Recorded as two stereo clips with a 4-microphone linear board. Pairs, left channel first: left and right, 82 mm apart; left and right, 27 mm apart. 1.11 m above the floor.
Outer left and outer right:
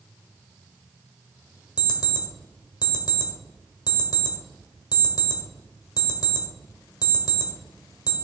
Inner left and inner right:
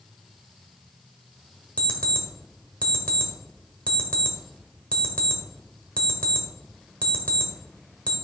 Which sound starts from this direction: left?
An alarm clock, at 1.8 s.